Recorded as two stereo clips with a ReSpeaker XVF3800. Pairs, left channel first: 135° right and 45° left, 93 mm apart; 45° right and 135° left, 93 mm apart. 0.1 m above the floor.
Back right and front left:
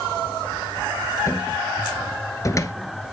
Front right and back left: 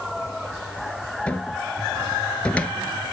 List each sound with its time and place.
1.3 s a cupboard door: 115° right, 1.0 m